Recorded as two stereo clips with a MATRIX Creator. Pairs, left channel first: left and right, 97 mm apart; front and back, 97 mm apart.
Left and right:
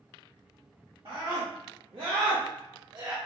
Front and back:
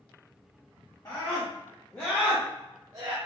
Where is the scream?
60° right, 2.0 m; by 3.2 s 145° right, 0.7 m.